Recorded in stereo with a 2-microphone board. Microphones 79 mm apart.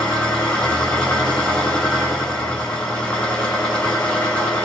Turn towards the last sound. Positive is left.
turn(degrees=15)  # may be behind; listen again after turning